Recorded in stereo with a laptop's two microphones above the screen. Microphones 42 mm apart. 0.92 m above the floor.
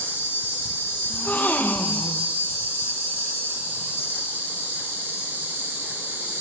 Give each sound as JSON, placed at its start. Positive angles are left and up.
{"t": 0.0, "sound": "an insect", "side_deg": -75, "distance_m": 4.0}
{"t": 1.1, "sound": "a gasp", "side_deg": 40, "distance_m": 0.6}